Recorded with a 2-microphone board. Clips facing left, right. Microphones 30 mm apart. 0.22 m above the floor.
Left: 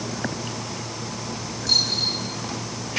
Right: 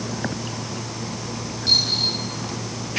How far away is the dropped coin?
About 6 m.